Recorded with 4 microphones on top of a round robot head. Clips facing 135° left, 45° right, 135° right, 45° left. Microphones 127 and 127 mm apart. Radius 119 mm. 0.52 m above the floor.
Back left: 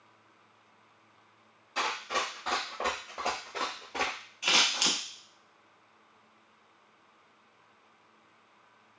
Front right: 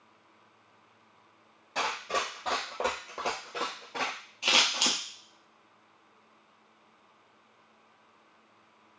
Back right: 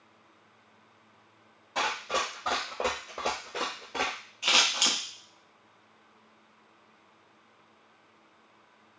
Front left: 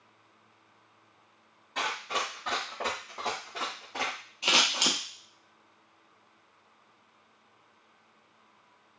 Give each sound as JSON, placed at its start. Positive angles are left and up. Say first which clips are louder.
{"t": 1.8, "sound": "running footsteps", "louder": "front right 1 dB, back right 3 dB", "azimuth_deg": -80, "distance_m": 1.4}
{"t": 4.4, "sound": "scissors", "louder": "front right 1 dB, front left 1 dB", "azimuth_deg": 0, "distance_m": 0.8}